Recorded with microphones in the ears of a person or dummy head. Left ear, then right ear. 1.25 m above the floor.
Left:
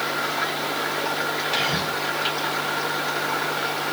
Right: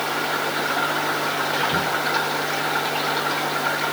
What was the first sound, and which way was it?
Whispering, 50° left (ahead or behind).